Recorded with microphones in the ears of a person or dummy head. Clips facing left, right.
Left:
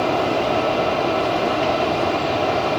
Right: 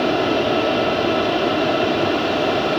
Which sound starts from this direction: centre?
A fan, at 0.0 s.